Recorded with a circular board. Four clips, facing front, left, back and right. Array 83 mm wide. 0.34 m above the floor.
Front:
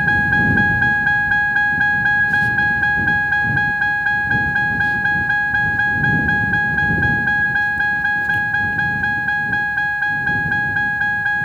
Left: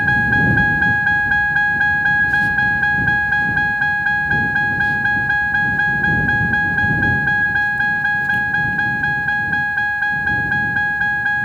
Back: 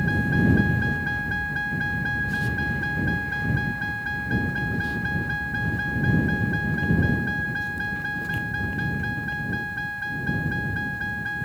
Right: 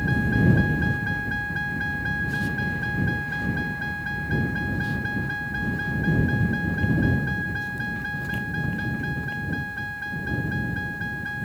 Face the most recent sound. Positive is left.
turn(degrees=50)